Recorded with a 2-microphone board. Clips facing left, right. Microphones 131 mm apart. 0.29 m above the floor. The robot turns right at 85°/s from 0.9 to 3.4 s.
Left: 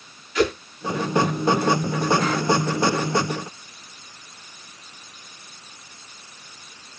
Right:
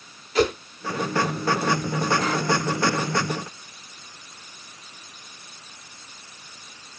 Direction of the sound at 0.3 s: 35° right (ahead or behind).